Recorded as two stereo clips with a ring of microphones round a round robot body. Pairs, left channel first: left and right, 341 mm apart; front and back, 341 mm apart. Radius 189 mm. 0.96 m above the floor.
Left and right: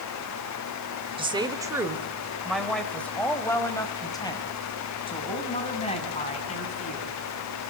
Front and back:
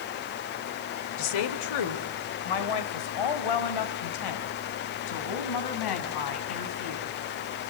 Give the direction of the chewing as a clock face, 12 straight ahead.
I don't hear chewing.